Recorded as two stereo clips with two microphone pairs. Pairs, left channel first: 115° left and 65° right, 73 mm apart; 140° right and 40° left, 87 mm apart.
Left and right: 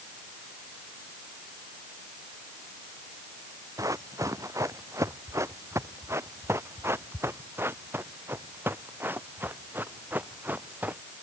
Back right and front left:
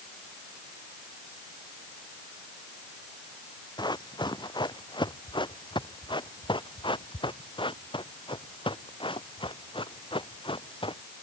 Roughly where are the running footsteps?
Right.